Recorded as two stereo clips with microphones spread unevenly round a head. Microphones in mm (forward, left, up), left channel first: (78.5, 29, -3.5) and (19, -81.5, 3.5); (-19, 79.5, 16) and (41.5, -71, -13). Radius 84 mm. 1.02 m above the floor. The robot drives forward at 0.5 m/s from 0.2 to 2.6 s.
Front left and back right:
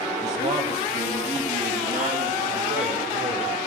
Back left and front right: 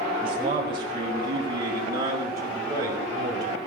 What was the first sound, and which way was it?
A man speaking, 130° right.